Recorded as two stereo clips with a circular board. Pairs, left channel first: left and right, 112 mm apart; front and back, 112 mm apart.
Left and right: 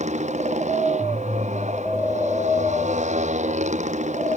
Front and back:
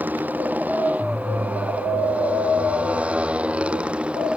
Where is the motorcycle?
105° right; by 4.4 s 100° right.